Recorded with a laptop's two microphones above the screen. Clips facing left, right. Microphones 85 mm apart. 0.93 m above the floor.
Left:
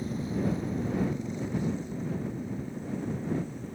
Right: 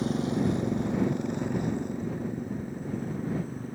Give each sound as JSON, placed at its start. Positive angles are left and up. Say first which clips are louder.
{"t": 0.0, "sound": "a motorcycle", "louder": "right 4 dB", "side_deg": -80}